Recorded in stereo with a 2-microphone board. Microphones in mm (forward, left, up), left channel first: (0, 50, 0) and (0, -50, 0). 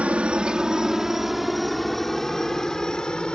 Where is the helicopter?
10° right (ahead or behind); by 3.3 s 10° left (ahead or behind).